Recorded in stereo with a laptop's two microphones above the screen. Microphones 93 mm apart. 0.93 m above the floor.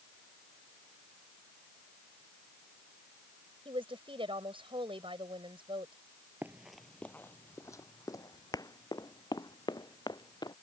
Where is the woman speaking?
70° right (ahead or behind).